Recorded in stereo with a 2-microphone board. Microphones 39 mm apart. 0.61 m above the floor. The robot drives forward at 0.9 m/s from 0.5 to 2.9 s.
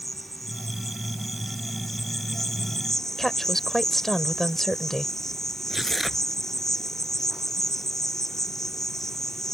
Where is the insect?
Centre (ahead or behind); by 9.6 s 10° left (ahead or behind).